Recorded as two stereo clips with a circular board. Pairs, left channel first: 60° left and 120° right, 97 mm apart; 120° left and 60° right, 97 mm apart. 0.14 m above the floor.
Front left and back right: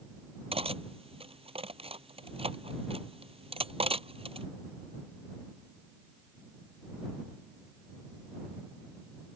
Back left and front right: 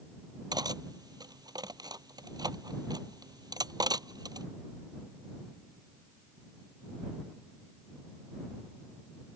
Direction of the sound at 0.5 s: 105° right.